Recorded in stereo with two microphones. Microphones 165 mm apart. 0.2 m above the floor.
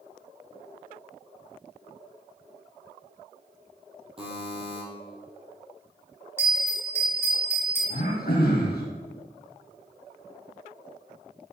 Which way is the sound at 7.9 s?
75° left (ahead or behind).